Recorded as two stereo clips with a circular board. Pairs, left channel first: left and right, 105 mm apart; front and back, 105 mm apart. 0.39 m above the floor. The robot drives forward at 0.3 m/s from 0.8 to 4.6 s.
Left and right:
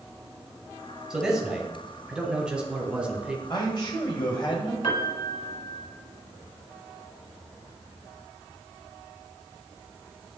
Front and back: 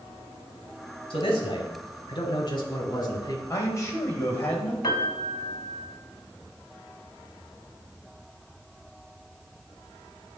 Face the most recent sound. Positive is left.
turn(degrees=50)